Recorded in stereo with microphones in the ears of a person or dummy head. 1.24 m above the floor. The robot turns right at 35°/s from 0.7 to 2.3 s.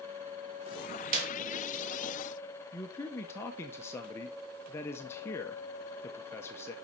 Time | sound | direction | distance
1.1 | a clap | 50° right (ahead or behind) | 2.5 m
2.7 | a man speaking | 15° left (ahead or behind) | 0.7 m